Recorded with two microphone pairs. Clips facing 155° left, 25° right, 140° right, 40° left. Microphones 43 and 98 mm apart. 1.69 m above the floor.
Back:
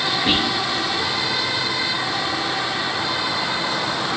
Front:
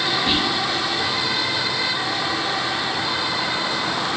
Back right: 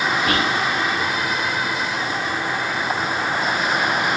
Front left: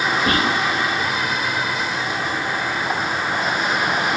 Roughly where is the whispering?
Left.